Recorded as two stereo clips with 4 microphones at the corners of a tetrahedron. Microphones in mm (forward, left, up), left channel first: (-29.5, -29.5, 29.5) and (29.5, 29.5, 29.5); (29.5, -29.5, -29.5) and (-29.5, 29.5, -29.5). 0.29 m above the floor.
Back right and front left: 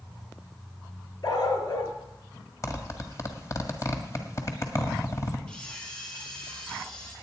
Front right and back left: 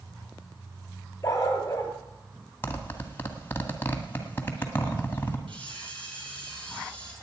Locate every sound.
1.2 s a dog barking: 100° right, 1.9 m
2.6 s a zipper: 100° right, 1.7 m
5.5 s a camera shutter: 145° left, 4 m